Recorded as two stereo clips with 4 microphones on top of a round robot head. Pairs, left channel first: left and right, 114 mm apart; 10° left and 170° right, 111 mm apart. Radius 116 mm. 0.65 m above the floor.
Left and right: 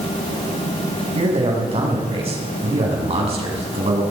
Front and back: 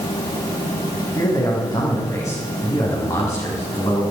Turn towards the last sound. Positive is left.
turn(degrees=-55)